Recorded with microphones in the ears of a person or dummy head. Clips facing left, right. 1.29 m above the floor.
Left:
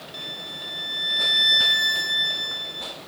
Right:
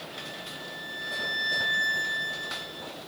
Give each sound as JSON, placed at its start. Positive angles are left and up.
{"t": 0.1, "sound": "a violin", "side_deg": 55, "distance_m": 0.9}